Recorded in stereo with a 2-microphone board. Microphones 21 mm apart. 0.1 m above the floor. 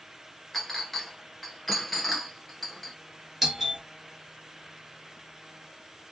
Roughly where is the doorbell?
Centre.